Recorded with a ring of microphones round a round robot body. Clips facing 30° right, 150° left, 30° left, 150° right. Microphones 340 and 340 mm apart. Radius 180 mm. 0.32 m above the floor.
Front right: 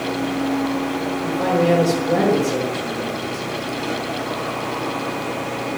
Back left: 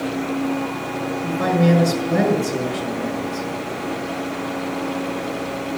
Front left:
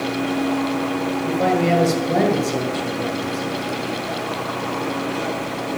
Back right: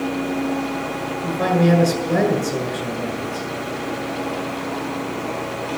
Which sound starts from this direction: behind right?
A man speaking, at 1.2 s.